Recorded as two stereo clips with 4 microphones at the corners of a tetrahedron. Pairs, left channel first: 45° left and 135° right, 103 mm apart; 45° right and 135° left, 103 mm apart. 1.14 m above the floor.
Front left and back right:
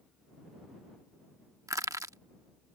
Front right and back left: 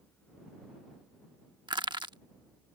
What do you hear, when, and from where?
1.7 s crushing: 170° left